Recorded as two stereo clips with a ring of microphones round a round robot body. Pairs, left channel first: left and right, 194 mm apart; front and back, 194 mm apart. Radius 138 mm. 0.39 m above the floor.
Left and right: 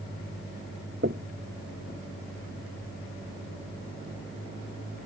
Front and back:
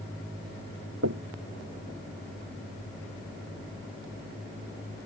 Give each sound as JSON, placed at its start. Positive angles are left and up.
{"t": 1.0, "sound": "knocking", "azimuth_deg": -150}